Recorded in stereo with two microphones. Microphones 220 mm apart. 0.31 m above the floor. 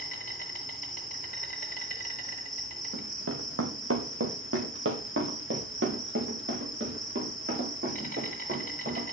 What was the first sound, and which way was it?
An insect, 40° left (ahead or behind).